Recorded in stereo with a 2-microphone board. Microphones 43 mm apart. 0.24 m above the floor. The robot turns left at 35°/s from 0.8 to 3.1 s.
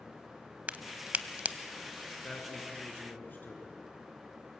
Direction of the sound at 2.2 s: 155° left.